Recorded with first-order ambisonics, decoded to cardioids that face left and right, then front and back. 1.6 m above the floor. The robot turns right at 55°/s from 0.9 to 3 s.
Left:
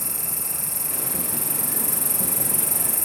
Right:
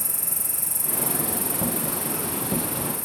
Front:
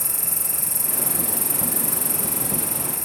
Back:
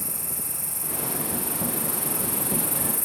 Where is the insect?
40° right, 1.4 m; by 3.1 s 75° left, 1.4 m.